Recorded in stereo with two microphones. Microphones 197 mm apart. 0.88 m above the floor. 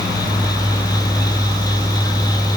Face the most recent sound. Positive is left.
No sound to turn to.